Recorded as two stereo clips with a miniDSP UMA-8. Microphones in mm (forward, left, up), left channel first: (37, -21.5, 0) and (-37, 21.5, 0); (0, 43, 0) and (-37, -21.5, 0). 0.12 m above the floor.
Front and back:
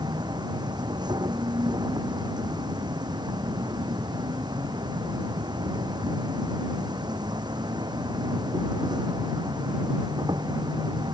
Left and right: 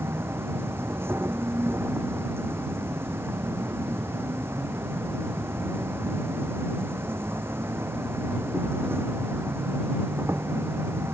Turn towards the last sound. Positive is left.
turn(degrees=-175)